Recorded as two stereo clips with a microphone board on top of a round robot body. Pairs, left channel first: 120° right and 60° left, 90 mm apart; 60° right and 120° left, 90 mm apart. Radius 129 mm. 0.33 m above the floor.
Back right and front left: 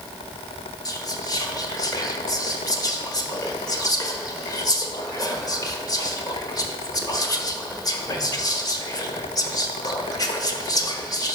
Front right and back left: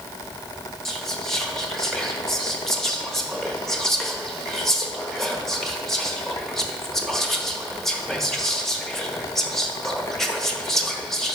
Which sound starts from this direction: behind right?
Whispering, at 0.8 s.